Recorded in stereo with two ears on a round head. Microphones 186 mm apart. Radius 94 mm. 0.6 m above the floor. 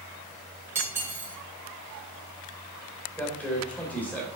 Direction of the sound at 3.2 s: 10° left (ahead or behind).